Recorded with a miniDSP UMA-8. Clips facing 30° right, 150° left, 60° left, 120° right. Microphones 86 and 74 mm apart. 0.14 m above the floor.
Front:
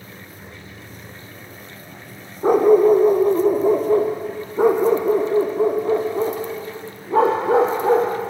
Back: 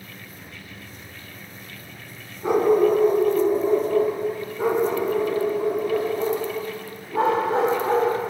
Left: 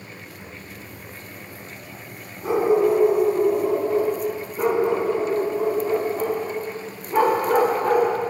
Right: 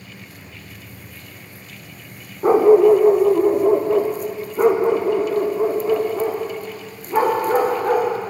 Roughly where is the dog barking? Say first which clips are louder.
Front 5 dB, right 7 dB; right.